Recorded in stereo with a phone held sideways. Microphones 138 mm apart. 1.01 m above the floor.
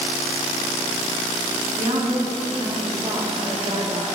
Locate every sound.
1.8 s a woman speaking: 60° right (ahead or behind), 2.0 m